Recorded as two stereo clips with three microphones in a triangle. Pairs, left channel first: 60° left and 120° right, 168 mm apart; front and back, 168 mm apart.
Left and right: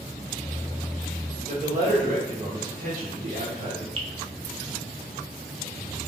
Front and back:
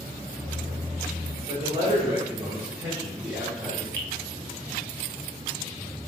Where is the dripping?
75° right, 0.7 m.